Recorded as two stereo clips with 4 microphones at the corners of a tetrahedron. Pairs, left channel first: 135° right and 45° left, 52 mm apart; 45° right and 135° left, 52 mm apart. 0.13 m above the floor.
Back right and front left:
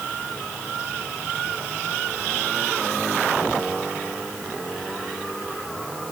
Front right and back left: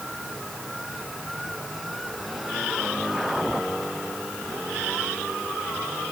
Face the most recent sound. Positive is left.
No sound to turn to.